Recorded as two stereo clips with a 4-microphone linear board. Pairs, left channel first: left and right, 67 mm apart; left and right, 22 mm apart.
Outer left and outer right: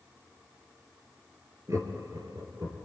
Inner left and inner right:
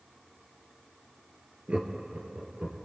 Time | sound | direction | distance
1.7 | laughter | 50° right (ahead or behind) | 2.5 m